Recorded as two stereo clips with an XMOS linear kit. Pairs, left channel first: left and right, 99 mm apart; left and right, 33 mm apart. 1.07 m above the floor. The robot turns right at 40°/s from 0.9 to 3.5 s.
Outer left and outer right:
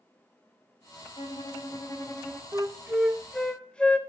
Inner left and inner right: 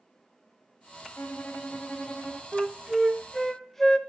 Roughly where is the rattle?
I don't hear a rattle.